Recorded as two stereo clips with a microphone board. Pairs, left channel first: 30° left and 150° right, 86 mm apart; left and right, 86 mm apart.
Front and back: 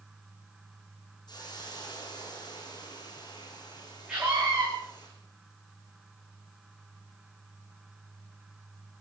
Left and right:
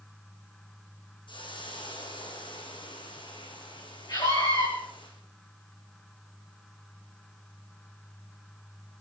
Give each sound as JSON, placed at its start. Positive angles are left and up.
{"t": 1.3, "sound": "a hiss", "azimuth_deg": 70, "distance_m": 6.0}
{"t": 4.1, "sound": "a scream", "azimuth_deg": 130, "distance_m": 9.0}